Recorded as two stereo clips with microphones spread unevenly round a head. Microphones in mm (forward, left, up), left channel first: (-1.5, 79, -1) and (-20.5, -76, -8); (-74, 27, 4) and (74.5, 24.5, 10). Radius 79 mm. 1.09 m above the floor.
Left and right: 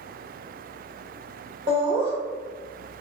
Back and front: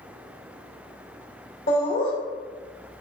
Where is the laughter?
150° right, 1.9 m.